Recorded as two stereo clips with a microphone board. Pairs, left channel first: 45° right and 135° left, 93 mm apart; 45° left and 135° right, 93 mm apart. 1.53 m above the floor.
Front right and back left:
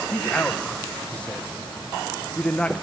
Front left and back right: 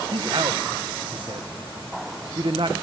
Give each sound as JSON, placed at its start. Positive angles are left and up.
{"t": 0.1, "sound": "a man speaking", "azimuth_deg": -120, "distance_m": 0.8}